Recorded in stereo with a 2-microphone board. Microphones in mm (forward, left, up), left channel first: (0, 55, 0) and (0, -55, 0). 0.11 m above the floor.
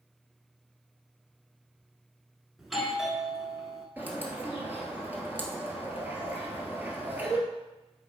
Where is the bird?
15° right (ahead or behind), 1.5 m.